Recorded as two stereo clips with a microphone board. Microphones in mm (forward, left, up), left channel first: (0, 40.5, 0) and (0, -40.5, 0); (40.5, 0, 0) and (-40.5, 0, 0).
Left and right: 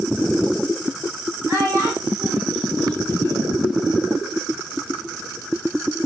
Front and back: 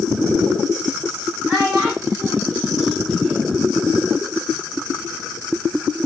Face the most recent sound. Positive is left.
turn(degrees=70)